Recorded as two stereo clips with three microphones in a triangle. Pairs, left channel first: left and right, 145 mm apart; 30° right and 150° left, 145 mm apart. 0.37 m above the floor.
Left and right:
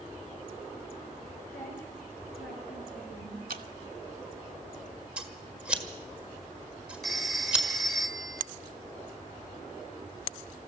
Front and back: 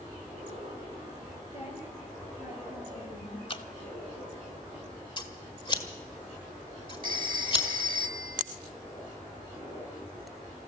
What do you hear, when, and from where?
1.5 s a woman speaking: 15° left, 6 m; by 3.4 s 5° right, 6.5 m
3.5 s dripping: 85° right, 0.7 m
5.2 s scissors: 15° right, 1.6 m
7.0 s a phone ringing: 175° left, 1.0 m